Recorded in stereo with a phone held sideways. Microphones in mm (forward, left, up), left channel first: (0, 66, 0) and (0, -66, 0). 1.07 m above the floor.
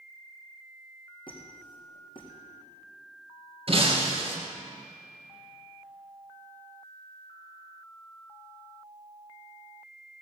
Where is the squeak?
40° left (ahead or behind), 4 m.